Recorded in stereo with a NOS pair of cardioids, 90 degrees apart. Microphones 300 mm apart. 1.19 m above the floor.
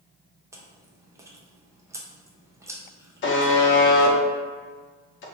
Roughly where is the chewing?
Ahead.